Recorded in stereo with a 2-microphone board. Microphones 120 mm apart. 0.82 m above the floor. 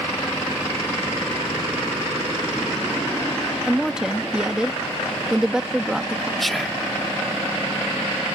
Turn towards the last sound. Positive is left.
turn(degrees=0)  # may be behind; listen again after turning